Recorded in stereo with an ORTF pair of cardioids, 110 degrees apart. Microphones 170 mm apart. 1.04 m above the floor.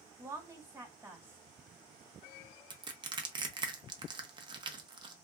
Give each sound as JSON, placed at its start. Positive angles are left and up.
{"t": 0.2, "sound": "a woman speaking", "azimuth_deg": -15, "distance_m": 1.3}
{"t": 2.7, "sound": "crushing", "azimuth_deg": -25, "distance_m": 0.6}